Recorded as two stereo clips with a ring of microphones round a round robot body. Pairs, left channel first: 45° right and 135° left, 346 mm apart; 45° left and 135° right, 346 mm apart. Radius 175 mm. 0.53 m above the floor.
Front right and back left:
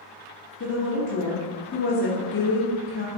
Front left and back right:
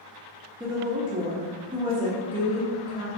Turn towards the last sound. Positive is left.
turn(degrees=-70)